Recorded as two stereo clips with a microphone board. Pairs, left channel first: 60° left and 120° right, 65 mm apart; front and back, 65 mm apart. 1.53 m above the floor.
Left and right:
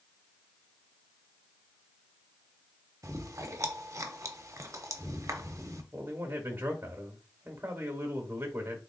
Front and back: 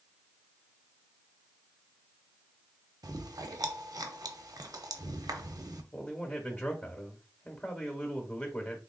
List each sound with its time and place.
3.0 s chewing: 160° right, 0.6 m
5.9 s a man speaking: 65° right, 0.9 m